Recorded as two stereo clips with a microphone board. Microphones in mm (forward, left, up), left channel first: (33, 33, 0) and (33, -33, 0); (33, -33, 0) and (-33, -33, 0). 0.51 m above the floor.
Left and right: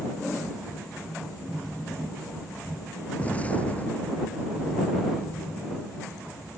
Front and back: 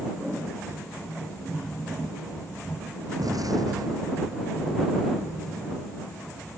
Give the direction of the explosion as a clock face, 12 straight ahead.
7 o'clock.